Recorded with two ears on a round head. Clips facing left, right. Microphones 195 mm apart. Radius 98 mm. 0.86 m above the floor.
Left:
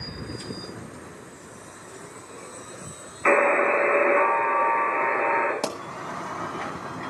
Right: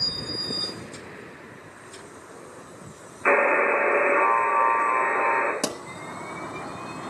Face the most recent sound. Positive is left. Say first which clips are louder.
# even
turn(degrees=-15)  # may be behind; listen again after turning